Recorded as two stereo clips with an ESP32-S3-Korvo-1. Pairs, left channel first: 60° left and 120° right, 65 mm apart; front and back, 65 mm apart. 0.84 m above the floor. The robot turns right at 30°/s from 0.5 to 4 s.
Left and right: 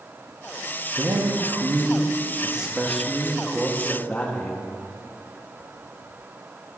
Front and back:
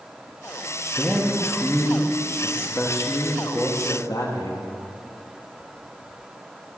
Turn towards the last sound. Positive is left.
turn(degrees=0)